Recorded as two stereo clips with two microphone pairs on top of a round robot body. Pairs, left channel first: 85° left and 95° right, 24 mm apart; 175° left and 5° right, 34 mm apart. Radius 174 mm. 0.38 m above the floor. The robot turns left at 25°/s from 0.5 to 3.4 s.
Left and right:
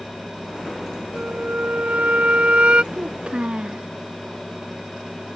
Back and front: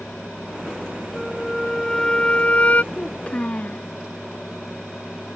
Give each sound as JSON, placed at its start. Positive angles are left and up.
{"t": 1.1, "sound": "a flute", "azimuth_deg": -95}
{"t": 2.9, "sound": "a child speaking", "azimuth_deg": -120}